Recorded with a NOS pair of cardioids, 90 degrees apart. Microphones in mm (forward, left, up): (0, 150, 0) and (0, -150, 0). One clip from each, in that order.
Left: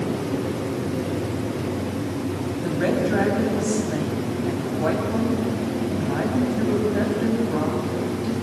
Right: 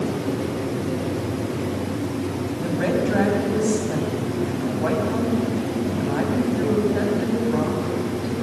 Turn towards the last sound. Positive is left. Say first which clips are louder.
# even
turn(degrees=0)